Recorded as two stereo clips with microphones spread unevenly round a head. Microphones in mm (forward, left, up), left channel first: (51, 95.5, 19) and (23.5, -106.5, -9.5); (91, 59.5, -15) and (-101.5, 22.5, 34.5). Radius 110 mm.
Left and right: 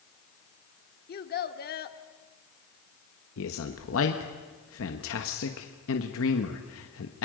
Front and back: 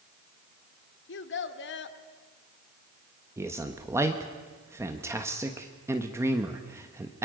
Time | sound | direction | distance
1.1 | a child speaking | 40° left | 1.5 m
3.4 | a man speaking | 110° left | 1.3 m